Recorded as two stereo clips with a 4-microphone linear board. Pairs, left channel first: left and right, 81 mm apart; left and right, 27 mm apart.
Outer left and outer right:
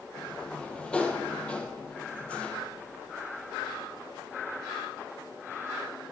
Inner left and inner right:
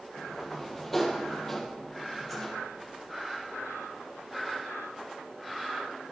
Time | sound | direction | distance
0.2 | a sliding door | 10° left (ahead or behind) | 2.5 m